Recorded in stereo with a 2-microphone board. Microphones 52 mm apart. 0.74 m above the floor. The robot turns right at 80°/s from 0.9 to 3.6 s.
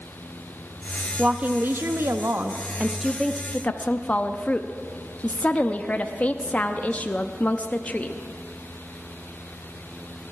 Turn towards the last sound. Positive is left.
turn(degrees=35)